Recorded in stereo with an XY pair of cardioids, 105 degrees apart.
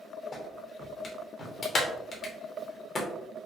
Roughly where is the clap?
Ahead left.